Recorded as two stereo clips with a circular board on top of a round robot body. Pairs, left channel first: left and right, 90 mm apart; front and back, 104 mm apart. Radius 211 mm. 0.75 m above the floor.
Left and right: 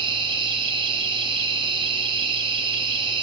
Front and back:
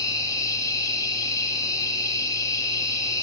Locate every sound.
0.0 s an insect: 60° right, 2.5 m